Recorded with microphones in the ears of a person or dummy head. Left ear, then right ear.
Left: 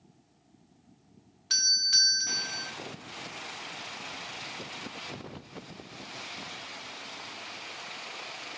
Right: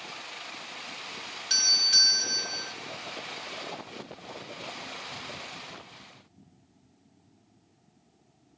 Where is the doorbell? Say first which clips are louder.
Right 2 dB; 10° right (ahead or behind), 0.7 m.